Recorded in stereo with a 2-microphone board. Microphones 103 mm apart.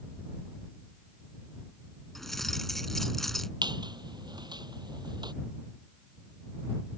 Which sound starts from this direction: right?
A squeak, at 3.6 s.